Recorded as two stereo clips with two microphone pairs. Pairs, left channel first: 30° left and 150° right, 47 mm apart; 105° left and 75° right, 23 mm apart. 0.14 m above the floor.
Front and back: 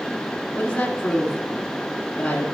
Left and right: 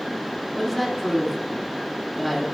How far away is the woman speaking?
About 1.1 m.